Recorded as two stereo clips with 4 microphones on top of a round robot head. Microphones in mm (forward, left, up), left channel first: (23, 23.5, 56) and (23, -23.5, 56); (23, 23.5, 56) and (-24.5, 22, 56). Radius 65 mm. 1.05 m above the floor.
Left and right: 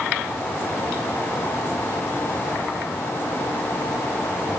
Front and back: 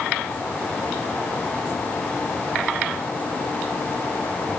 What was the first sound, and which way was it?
Only background noise.